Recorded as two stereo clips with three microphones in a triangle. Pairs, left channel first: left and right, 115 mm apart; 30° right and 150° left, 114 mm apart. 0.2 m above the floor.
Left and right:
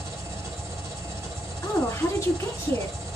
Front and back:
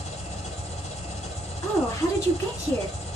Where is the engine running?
25° right, 2 m.